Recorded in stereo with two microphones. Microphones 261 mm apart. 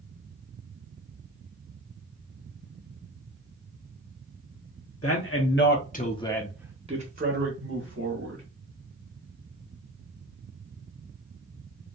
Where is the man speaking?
60° left (ahead or behind), 1.5 m; by 8.4 s 60° right (ahead or behind), 2.0 m.